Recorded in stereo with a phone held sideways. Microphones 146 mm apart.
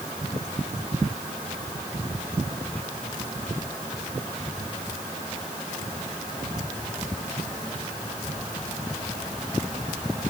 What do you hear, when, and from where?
Only background noise.